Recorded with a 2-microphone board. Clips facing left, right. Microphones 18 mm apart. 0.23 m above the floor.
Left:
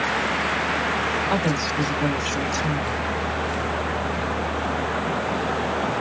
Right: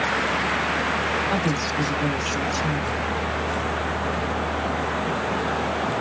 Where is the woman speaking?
30° left (ahead or behind), 1.4 m.